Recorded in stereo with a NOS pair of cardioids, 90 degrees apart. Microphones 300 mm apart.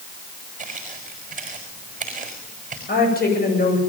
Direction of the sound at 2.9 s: 30° left.